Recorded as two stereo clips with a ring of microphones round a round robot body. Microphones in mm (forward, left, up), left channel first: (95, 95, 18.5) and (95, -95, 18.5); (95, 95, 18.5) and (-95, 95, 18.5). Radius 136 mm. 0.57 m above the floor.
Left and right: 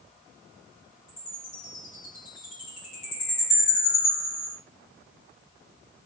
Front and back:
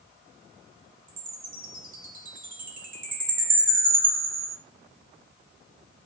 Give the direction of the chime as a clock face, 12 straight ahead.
7 o'clock.